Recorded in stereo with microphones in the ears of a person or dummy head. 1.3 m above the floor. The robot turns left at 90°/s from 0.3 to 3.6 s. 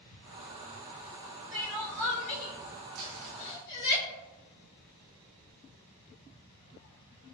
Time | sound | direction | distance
1.5 | crying | 30° right (ahead or behind) | 1.7 m
3.0 | crumpling | 80° right | 1.8 m